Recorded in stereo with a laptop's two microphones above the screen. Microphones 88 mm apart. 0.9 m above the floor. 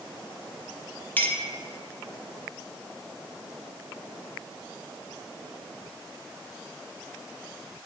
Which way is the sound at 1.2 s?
20° left (ahead or behind).